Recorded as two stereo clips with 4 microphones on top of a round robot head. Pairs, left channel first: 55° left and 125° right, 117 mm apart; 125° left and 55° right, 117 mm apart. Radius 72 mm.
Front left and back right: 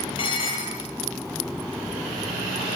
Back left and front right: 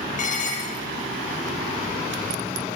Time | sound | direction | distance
0.2 | dishes clattering | 105° left | 7.5 m